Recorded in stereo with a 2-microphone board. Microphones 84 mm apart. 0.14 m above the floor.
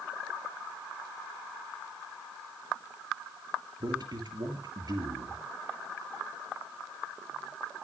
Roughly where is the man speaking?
Right.